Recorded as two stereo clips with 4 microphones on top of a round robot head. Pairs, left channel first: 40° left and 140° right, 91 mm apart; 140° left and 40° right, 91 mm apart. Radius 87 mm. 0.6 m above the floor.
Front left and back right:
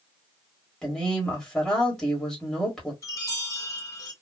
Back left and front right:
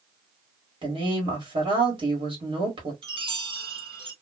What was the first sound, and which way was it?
A woman speaking, 40° right.